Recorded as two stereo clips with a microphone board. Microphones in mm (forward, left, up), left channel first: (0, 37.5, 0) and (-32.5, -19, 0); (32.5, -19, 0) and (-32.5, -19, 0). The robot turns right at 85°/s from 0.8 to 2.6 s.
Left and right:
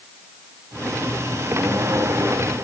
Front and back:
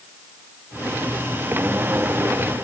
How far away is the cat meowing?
No cat meowing in this recording.